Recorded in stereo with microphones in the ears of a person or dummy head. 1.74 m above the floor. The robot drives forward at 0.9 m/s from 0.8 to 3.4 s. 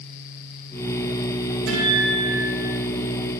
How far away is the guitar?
About 7 m.